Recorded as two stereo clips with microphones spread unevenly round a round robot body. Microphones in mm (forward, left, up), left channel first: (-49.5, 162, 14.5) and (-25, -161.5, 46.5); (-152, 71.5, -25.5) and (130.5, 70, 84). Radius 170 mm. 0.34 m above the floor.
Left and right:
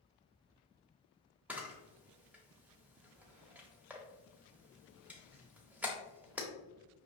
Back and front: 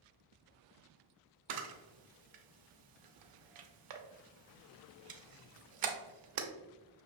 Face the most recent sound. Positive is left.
turn(degrees=5)